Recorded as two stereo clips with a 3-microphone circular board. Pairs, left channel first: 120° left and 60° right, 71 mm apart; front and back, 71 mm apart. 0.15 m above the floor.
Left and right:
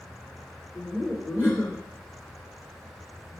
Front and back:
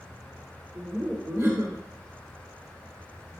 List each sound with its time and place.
0.8 s laughter: 170° left, 2 m